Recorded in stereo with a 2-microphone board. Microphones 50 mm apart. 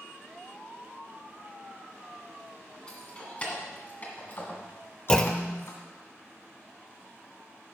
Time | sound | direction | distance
2.9 | keys jangling | 20° left (ahead or behind) | 2 m
5.1 | a clunk | 15° left (ahead or behind) | 0.5 m